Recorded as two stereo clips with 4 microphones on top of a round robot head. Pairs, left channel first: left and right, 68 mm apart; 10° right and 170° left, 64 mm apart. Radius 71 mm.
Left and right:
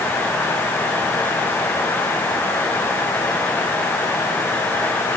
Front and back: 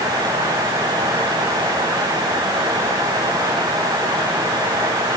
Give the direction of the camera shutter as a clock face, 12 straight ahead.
I don't hear a camera shutter.